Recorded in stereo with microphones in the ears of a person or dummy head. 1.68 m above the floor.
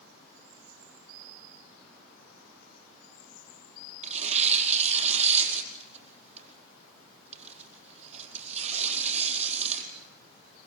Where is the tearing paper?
35° right (ahead or behind), 4.5 m.